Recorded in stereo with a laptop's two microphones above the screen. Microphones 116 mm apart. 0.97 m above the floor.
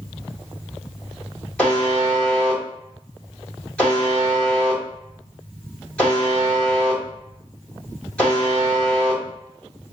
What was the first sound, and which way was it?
A buzzer, 10° left (ahead or behind).